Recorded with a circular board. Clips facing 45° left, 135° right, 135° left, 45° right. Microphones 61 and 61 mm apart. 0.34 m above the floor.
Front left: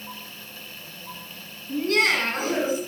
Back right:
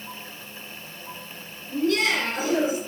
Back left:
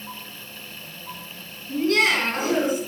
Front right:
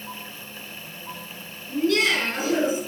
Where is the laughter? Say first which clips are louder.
Front left 1 dB, back left 1 dB; 85° left, 3 m; by 2.8 s 100° left, 3.5 m.